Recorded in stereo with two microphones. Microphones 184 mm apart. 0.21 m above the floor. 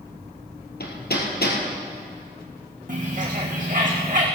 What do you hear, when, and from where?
0.8 s hammering: 70° left (ahead or behind), 2.5 m
2.9 s a bird: 50° right (ahead or behind), 3.5 m